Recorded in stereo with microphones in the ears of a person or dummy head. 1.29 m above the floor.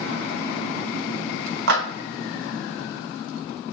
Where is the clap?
75° right (ahead or behind), 2.0 m.